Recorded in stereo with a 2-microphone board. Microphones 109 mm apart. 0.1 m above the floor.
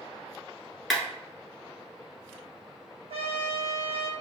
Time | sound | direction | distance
0.9 | a clap | centre (ahead or behind) | 1.1 m
3.1 | a trumpet | 65° right (ahead or behind) | 0.8 m